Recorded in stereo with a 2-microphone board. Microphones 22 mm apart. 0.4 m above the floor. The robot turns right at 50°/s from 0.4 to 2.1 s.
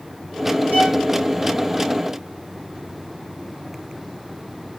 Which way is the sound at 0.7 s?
80° right.